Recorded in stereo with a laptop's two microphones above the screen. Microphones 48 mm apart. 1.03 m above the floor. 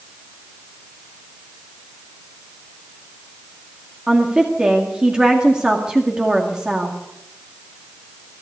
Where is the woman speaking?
15° right (ahead or behind), 2.0 m.